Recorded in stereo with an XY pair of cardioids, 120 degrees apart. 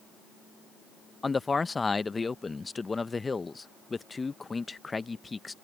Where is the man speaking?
20° left.